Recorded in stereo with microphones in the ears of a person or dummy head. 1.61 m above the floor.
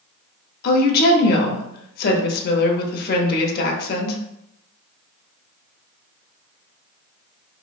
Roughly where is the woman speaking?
Left.